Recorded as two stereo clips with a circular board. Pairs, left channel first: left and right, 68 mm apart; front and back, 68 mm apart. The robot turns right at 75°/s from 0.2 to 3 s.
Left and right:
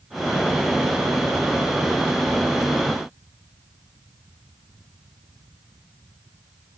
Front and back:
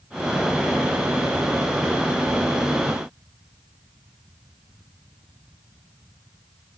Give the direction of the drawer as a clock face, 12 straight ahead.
No drawer in this recording.